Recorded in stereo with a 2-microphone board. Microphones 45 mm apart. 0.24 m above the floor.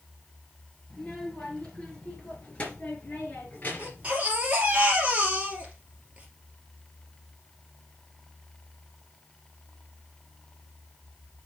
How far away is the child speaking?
About 3 m.